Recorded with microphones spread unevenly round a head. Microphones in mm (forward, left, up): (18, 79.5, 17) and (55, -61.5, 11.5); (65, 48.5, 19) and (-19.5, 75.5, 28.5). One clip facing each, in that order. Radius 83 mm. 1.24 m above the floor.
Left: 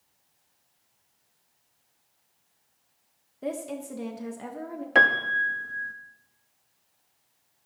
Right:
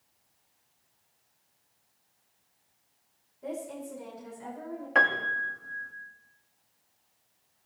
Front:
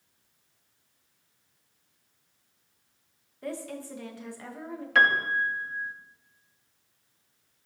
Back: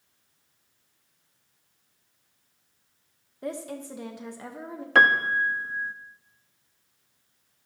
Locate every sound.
3.4 s a woman speaking: 95° left, 1.3 m
5.0 s a piano: 150° left, 0.7 m